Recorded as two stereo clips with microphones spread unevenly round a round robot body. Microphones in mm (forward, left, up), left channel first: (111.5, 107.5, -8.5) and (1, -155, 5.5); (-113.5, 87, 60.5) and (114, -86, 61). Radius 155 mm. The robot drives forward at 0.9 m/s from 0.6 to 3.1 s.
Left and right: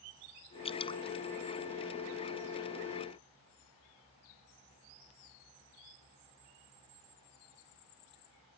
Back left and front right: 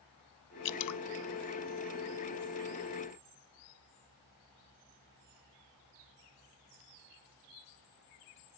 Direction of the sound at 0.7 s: 140° left.